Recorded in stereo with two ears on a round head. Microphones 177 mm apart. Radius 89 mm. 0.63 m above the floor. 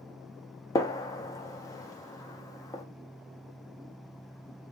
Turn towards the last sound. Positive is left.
turn(degrees=15)  # may be behind; listen again after turning